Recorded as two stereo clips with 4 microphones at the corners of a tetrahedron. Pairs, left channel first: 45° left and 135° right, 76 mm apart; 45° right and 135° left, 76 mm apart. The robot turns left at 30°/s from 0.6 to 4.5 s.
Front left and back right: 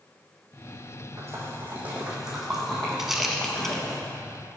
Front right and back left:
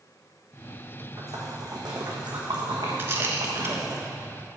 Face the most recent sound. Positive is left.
turn(degrees=100)